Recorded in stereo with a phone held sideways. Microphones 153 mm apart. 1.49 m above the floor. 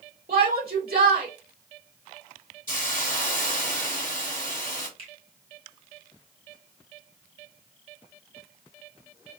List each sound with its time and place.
0.3 s a shout: 85° right, 2 m
2.7 s a hiss: 60° left (ahead or behind), 1.0 m
5.0 s a finger snap: 40° right (ahead or behind), 1.4 m